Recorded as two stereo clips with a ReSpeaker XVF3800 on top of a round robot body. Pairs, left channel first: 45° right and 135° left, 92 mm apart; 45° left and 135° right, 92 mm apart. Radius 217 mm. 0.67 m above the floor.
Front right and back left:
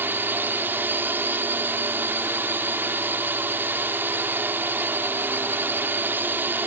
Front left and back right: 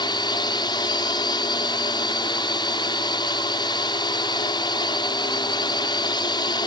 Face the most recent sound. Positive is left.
turn(degrees=70)